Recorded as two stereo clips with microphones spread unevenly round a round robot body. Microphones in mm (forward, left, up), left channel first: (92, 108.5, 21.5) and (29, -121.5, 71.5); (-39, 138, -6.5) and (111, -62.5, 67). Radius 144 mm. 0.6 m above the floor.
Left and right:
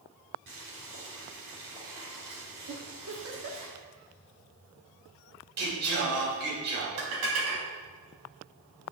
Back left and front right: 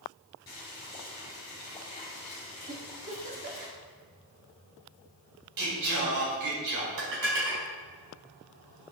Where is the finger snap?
I don't hear a finger snap.